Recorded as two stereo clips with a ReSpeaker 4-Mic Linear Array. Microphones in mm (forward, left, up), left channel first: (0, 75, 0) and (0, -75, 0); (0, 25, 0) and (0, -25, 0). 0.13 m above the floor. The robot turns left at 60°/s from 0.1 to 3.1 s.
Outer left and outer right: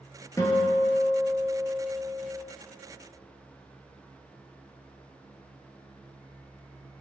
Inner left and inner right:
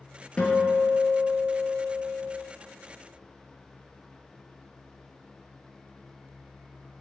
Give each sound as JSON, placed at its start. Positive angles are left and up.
{"t": 0.4, "sound": "a guitar", "azimuth_deg": 25, "distance_m": 0.6}